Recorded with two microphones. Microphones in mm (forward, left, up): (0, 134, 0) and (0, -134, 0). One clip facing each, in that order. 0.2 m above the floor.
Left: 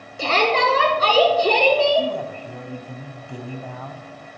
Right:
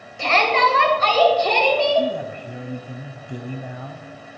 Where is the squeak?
I don't hear a squeak.